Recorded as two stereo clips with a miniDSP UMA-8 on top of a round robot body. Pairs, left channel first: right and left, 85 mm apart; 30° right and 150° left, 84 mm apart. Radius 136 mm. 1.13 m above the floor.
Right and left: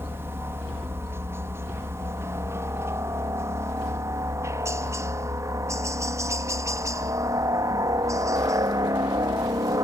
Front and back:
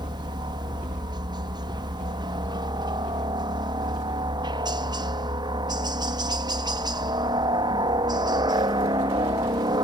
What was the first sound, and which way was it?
A helicopter, 150° left.